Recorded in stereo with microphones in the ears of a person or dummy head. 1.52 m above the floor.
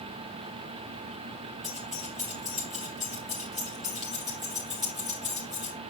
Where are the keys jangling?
5° left (ahead or behind), 0.5 m.